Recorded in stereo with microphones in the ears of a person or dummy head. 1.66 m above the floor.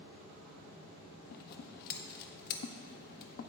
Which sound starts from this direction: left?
Scissors, at 1.3 s.